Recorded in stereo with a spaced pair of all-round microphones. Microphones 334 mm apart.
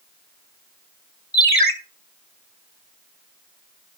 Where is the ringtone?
25° left (ahead or behind), 1.4 m.